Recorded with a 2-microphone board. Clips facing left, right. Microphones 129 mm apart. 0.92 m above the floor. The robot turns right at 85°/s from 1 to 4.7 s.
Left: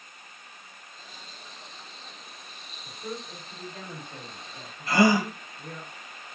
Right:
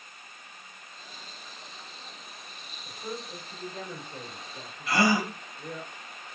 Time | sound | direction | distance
2.9 | a man speaking | 30° right (ahead or behind) | 1.4 m
4.9 | a gasp | 45° left (ahead or behind) | 1.5 m